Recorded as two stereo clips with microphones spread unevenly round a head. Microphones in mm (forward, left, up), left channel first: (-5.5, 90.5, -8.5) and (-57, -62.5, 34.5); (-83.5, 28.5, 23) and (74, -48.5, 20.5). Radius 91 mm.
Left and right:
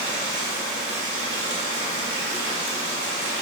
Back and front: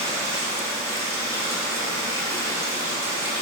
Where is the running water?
100° right, 3.5 m.